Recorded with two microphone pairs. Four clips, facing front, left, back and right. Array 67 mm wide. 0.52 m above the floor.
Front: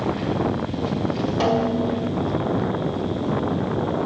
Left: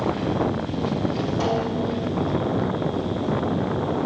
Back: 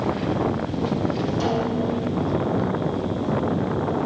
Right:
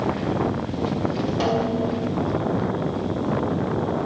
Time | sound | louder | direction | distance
1.4 | a snare drum | right 3 dB, front 5 dB | 15° right | 2.5 m